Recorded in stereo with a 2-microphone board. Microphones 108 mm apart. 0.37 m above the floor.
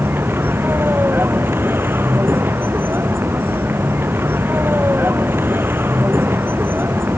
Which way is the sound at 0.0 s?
20° right (ahead or behind).